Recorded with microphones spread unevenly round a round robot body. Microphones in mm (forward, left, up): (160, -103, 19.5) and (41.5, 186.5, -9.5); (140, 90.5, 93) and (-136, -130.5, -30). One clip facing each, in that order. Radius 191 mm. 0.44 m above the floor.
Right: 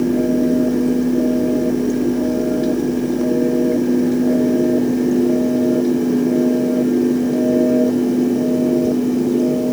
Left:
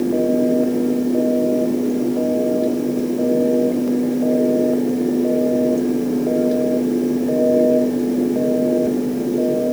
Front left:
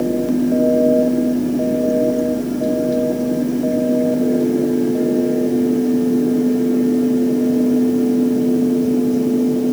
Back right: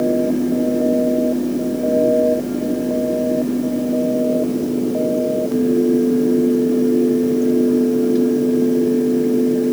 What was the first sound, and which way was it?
Only background noise.